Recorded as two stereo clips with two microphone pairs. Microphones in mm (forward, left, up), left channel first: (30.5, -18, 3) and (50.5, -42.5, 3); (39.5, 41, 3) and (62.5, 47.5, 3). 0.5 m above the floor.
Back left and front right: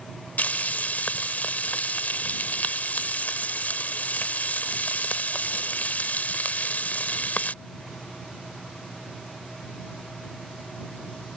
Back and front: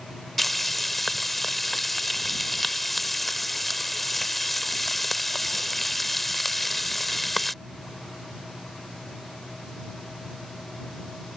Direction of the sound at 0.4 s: 110° left.